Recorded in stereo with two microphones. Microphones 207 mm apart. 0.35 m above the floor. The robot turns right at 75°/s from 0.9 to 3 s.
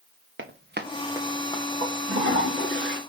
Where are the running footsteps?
70° right (ahead or behind), 1.4 m; by 1.6 s 30° left (ahead or behind), 2 m.